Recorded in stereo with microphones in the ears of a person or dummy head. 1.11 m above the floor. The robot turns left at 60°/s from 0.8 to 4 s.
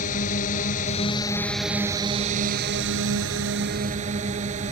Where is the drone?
50° left; by 4.7 s 145° right.